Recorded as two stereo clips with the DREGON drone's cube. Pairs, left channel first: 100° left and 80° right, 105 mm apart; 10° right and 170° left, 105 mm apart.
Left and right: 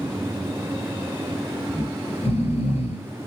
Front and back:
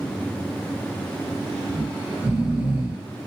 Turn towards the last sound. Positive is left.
turn(degrees=100)